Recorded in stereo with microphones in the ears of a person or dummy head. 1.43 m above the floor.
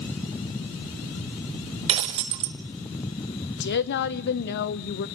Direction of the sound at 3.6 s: 65° left (ahead or behind).